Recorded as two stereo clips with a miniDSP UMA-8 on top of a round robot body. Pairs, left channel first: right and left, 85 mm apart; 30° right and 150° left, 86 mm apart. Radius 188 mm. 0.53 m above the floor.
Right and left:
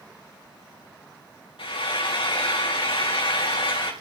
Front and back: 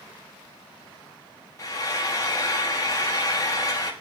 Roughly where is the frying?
Right.